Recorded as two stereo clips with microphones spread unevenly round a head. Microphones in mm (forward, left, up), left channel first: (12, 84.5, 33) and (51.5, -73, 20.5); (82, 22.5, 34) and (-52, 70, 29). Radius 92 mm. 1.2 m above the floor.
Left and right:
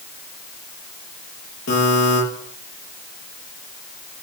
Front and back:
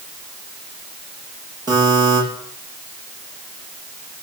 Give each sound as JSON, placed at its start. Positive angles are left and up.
{"t": 1.7, "sound": "a buzzer", "azimuth_deg": 100, "distance_m": 8.0}